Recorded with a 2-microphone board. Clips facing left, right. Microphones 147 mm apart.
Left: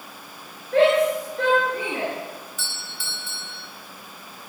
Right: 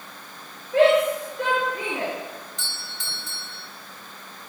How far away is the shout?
About 9.5 m.